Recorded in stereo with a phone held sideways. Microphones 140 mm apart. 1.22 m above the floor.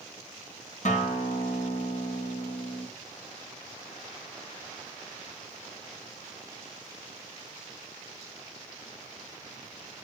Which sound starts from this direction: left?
A guitar, at 0.8 s.